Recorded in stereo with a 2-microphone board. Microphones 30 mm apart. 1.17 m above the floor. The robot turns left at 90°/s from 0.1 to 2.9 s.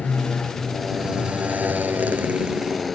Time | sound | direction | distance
0.0 | a motorcycle | 70° left | ?